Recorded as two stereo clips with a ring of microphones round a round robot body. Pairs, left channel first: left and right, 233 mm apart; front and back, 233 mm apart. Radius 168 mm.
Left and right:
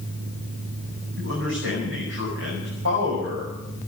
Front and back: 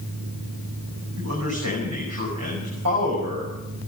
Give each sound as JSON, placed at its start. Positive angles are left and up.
{"t": 1.2, "sound": "a man speaking", "azimuth_deg": -140, "distance_m": 5.5}